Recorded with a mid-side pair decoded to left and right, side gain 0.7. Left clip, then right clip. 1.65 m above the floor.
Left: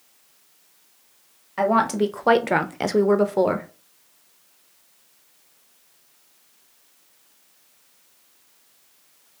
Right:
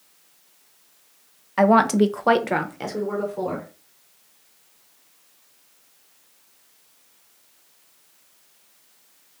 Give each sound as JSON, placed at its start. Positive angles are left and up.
{"t": 1.6, "sound": "a woman speaking", "azimuth_deg": -25, "distance_m": 0.8}